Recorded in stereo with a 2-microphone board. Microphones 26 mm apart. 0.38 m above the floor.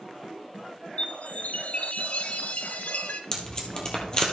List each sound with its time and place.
1.0 s a chime: 70° left (ahead or behind), 0.7 m
3.3 s tape being pulled: 30° left (ahead or behind), 1.9 m